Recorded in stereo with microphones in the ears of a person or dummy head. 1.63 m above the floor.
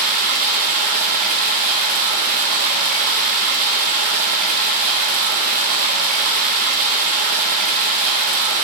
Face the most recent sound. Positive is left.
turn(degrees=-45)  # may be behind; listen again after turning